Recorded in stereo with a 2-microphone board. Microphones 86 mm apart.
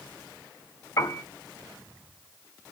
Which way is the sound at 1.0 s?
40° left (ahead or behind).